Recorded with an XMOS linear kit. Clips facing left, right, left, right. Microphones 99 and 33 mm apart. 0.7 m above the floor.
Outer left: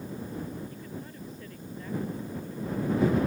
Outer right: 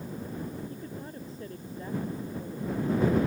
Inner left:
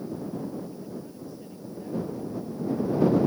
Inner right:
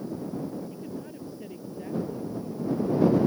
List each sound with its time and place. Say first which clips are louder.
0.7 s a woman speaking: outer right 1 dB, inner right 1 dB; 30° right (ahead or behind); by 3.3 s 25° right (ahead or behind)